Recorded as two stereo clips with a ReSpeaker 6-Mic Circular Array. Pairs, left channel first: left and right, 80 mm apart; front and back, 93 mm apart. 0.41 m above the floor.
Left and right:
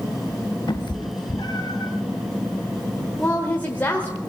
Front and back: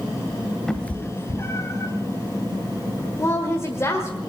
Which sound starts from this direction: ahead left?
A woman speaking, at 3.2 s.